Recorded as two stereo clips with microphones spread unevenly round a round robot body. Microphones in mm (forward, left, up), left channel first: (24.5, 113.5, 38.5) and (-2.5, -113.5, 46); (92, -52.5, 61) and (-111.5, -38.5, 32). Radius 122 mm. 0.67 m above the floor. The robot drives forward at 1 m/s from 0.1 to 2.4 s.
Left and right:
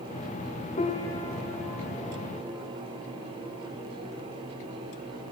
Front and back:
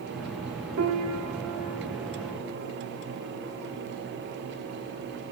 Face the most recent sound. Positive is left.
turn(degrees=170)